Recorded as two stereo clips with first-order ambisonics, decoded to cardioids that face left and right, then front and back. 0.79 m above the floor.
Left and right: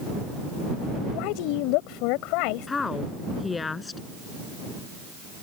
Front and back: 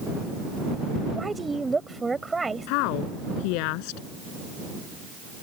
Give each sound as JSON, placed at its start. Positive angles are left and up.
{"t": 1.1, "sound": "a woman speaking", "azimuth_deg": 100}
{"t": 2.7, "sound": "a woman speaking", "azimuth_deg": 15}